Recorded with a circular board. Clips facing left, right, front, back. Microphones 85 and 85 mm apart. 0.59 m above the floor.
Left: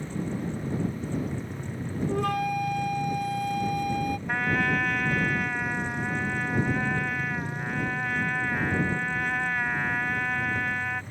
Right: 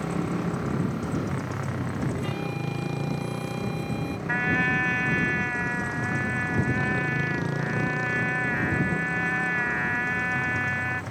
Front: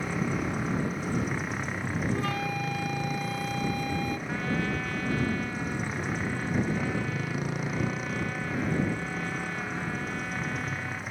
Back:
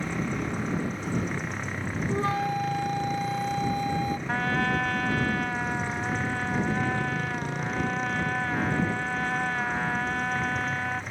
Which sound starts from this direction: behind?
A trumpet, at 4.3 s.